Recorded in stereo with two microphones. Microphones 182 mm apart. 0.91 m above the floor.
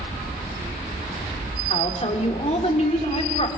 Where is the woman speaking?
35° left (ahead or behind), 2.5 m.